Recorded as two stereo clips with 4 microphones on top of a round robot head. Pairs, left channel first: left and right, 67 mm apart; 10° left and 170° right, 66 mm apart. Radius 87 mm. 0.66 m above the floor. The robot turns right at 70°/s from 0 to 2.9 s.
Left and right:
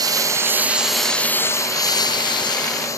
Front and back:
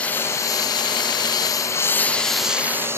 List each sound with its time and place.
0.0 s a lawn mower: 70° right; by 3.0 s 135° left